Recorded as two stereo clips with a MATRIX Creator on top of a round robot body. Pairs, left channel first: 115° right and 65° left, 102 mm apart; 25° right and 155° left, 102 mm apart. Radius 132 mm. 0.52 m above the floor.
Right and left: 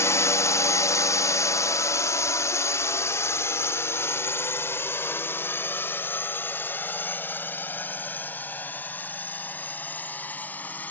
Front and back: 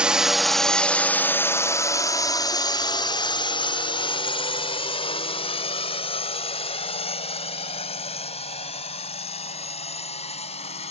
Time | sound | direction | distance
0.0 | a drone | 135° right | ?